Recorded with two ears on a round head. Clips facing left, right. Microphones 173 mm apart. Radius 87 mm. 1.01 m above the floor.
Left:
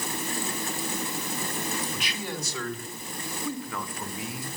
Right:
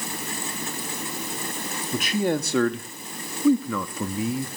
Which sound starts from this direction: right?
A man speaking, at 1.9 s.